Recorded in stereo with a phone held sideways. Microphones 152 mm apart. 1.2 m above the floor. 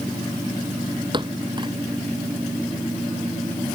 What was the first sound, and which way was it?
A thud, 30° right (ahead or behind).